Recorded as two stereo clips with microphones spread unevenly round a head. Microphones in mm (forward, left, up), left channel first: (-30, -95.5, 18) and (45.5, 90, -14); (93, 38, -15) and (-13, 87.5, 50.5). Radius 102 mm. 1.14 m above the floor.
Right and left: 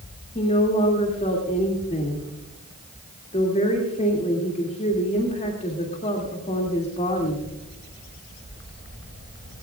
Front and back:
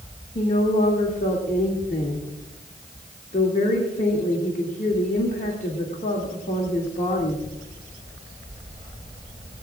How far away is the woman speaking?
About 2.5 m.